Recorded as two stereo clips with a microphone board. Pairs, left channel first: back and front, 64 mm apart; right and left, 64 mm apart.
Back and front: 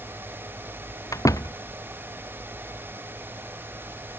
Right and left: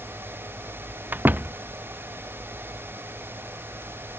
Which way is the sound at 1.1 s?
150° left.